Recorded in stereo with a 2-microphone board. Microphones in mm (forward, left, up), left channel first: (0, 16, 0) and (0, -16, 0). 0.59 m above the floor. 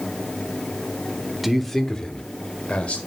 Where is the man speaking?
5° right (ahead or behind), 1.0 m; by 3.0 s 40° left (ahead or behind), 2.0 m.